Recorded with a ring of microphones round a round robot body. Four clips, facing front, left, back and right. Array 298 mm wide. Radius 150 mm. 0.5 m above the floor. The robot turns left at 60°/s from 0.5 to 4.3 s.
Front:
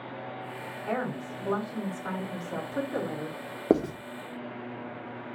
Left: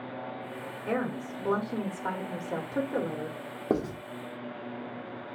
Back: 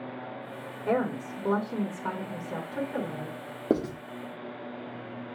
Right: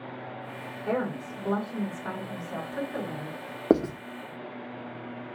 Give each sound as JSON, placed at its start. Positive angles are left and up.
{"t": 0.9, "sound": "a woman speaking", "azimuth_deg": -160, "distance_m": 1.9}
{"t": 3.7, "sound": "writing", "azimuth_deg": -65, "distance_m": 0.6}